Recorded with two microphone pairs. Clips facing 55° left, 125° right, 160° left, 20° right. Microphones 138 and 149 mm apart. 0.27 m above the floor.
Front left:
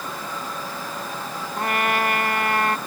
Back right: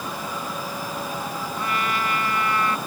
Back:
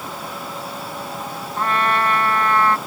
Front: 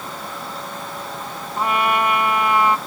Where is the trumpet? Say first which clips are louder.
Front left 5 dB, front 1 dB; 55° left.